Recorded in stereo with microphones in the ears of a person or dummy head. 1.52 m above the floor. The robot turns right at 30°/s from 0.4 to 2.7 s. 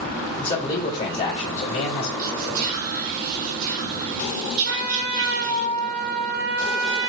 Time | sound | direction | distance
0.4 | a man speaking | 20° left | 1.9 m
2.2 | whispering | 60° right (ahead or behind) | 1.9 m
4.7 | a trumpet | 35° right (ahead or behind) | 1.1 m